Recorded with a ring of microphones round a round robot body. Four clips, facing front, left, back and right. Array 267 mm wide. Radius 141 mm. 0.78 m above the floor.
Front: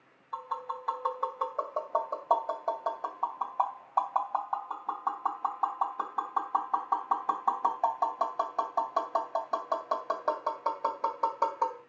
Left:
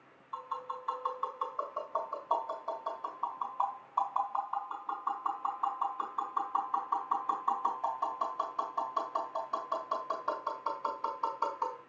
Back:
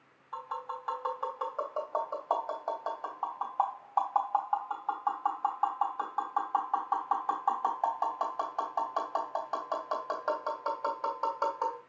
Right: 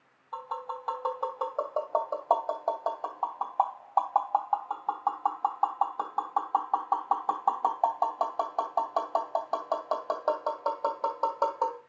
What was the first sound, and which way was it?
Tapping, 65° right.